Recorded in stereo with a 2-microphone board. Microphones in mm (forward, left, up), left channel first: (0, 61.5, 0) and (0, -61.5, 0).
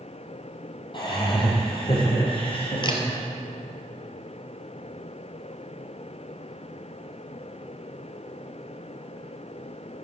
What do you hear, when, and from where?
0.9 s laughter: 40° left (ahead or behind), 5 m; by 3.2 s 50° left (ahead or behind), 6 m
2.8 s a camera shutter: 40° left (ahead or behind), 2.0 m